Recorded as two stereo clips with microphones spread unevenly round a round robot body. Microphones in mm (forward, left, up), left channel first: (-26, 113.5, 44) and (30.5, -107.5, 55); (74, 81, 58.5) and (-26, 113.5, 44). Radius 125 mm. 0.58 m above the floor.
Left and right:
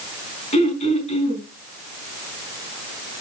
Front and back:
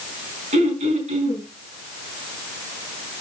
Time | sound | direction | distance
0.5 | throat clearing | 170° left | 4.5 m